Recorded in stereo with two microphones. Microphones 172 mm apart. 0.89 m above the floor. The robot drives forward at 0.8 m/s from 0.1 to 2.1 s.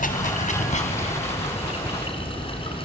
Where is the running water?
55° left (ahead or behind), 2 m; by 2.9 s 30° left (ahead or behind), 3.5 m.